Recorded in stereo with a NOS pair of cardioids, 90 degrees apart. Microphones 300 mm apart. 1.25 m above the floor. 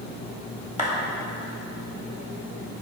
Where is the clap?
25° left, 1.8 m.